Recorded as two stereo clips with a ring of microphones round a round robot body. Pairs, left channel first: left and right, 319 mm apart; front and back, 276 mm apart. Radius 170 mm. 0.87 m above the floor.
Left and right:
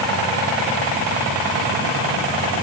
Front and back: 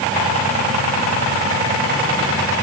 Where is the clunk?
No clunk in this recording.